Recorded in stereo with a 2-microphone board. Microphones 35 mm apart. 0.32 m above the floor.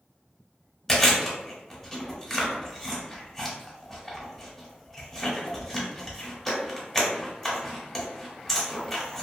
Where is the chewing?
10° left (ahead or behind), 0.9 m.